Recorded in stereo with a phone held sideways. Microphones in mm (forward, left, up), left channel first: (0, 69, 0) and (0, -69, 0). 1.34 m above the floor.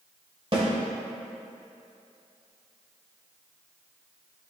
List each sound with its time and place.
0.5 s a snare drum: 40° right (ahead or behind), 2.5 m